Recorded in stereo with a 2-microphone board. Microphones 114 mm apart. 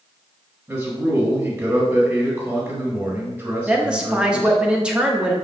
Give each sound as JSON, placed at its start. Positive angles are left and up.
{"t": 0.7, "sound": "a man speaking", "side_deg": -25, "distance_m": 1.3}
{"t": 3.7, "sound": "a woman speaking", "side_deg": -10, "distance_m": 0.6}